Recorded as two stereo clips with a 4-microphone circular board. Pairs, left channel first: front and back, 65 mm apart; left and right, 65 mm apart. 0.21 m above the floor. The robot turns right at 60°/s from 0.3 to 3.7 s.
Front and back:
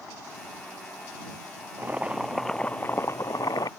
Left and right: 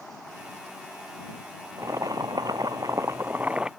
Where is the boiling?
125° right; by 3.7 s 10° right.